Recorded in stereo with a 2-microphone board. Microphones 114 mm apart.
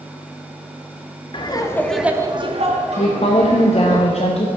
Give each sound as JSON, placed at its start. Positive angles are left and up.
{"t": 1.3, "sound": "laughter", "side_deg": 40, "distance_m": 0.9}
{"t": 3.0, "sound": "a woman speaking", "side_deg": 60, "distance_m": 0.6}